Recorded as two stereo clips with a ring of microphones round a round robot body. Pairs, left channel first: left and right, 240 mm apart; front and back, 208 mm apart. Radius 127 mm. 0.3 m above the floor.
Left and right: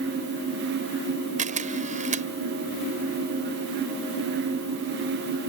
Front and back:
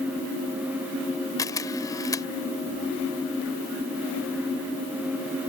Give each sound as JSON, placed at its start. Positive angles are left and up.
{"t": 1.4, "sound": "a camera shutter", "azimuth_deg": -60}